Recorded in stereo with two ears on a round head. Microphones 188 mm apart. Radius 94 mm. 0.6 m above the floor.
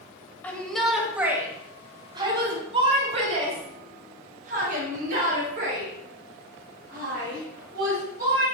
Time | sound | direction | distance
0.4 | a shout | 10° left (ahead or behind) | 3 m